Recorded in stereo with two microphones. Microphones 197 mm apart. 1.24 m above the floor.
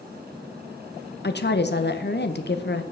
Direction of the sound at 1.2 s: 60° left (ahead or behind).